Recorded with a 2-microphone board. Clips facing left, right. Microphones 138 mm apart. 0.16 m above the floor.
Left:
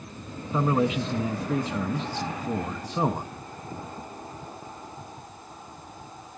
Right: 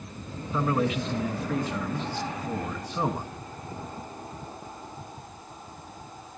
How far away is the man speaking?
About 1.0 m.